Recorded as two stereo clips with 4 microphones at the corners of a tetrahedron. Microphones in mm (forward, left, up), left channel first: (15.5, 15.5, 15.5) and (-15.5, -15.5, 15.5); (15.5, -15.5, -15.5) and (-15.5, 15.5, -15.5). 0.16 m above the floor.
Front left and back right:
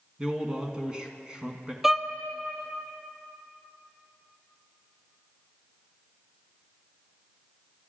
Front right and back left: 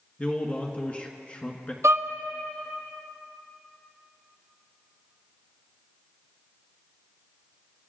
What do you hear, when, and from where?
0.2 s a man speaking: 80° right, 1.8 m
1.8 s a violin: 140° left, 0.8 m